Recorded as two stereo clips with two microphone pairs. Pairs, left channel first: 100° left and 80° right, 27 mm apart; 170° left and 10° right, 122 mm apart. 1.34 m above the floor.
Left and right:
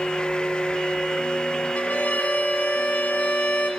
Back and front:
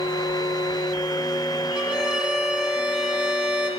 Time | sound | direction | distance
1.8 | a violin | 75° left | 2.5 m